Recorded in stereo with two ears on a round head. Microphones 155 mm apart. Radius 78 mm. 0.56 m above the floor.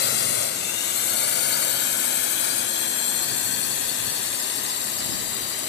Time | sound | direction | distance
0.0 | a drone | 65° left (ahead or behind) | ?